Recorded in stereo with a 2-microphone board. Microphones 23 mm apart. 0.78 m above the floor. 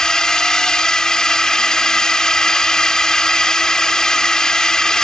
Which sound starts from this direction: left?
A drone, at 0.0 s.